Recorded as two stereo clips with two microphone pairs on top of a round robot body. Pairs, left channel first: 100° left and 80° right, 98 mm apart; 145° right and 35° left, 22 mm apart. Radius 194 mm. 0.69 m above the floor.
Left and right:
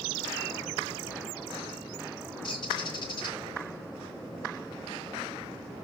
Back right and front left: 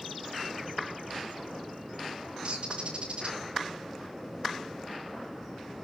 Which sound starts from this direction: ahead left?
A bird, at 2.4 s.